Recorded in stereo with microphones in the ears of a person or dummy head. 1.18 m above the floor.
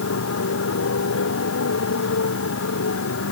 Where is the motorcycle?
70° left (ahead or behind); by 3.3 s 65° left (ahead or behind).